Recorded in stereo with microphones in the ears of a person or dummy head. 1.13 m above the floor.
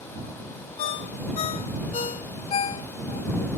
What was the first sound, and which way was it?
A ringtone, 35° left (ahead or behind).